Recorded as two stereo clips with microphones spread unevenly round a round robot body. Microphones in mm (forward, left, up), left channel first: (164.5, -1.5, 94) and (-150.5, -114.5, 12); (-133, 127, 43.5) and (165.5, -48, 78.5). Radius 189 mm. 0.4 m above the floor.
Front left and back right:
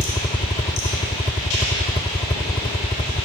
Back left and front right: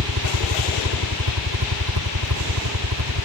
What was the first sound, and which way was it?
A helicopter, 60° right.